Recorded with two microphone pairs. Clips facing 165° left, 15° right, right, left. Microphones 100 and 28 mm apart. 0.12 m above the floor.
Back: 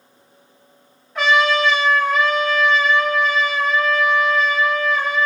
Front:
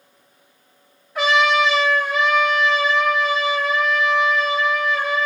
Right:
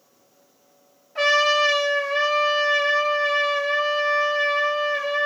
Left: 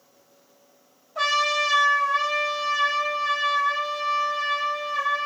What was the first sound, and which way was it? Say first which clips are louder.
A trumpet: even, right 4 dB; 100° right.